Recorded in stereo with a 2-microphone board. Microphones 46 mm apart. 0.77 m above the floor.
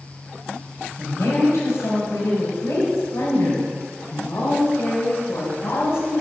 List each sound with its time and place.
1.0 s a woman speaking: 80° left, 4.5 m; by 6.2 s 60° left (ahead or behind), 3.5 m